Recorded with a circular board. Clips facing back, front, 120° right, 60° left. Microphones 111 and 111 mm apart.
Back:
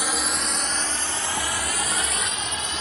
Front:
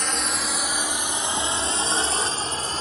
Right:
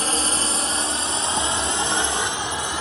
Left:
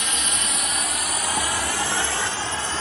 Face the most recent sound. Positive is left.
turn(degrees=-45)